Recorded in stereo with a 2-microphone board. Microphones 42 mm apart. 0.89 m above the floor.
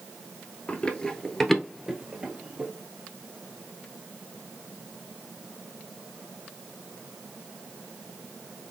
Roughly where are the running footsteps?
Left.